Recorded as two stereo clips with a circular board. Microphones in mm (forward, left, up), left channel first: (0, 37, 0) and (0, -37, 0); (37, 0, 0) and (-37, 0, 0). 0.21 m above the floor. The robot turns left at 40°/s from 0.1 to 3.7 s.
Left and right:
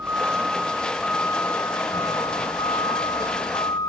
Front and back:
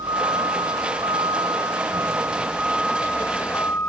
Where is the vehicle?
155° right; by 3.9 s 60° left.